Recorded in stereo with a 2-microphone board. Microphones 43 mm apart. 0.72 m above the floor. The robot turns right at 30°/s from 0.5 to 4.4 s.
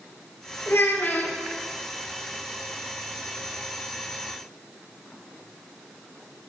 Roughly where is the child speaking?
Left.